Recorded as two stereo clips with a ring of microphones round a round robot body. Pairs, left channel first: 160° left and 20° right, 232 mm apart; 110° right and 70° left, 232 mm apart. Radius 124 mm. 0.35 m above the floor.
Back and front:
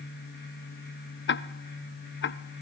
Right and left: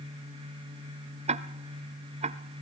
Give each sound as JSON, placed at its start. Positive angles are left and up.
{"t": 1.3, "sound": "ticking", "azimuth_deg": 125, "distance_m": 0.6}